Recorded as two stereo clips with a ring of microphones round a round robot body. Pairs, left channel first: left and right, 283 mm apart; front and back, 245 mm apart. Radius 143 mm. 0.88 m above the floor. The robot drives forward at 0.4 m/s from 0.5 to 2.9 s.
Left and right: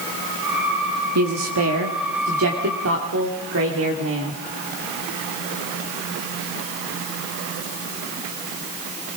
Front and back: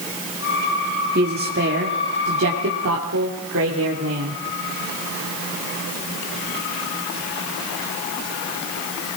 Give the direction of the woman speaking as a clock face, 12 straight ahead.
4 o'clock.